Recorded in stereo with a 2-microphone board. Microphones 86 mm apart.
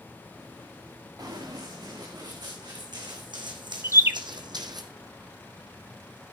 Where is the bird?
30° right (ahead or behind), 0.8 m.